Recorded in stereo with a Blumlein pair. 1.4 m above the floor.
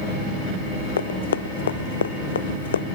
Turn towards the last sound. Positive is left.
turn(degrees=65)